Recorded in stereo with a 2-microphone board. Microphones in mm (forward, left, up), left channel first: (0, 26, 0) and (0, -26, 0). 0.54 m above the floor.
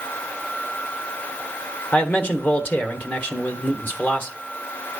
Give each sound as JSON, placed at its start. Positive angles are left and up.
{"t": 1.9, "sound": "a man speaking", "side_deg": 35, "distance_m": 1.2}